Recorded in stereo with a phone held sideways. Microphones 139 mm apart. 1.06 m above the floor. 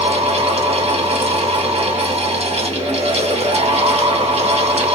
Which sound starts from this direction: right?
A fan, at 0.0 s.